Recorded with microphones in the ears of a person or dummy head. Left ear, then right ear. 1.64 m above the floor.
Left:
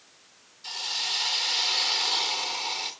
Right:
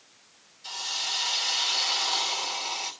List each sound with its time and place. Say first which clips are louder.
0.6 s a hiss: left 1 dB; 10° left (ahead or behind), 2.5 m